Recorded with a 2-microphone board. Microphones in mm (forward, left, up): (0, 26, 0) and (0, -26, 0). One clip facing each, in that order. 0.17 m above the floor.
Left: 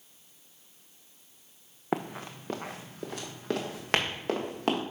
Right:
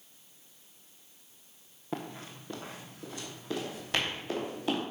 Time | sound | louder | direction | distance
1.9 | running footsteps | left 6 dB | 70° left (ahead or behind) | 1.0 m